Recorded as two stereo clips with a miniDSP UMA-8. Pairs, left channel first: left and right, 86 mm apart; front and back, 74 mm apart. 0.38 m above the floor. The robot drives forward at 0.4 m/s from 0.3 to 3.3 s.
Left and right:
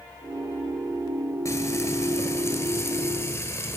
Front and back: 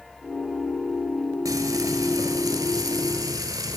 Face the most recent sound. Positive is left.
turn(degrees=145)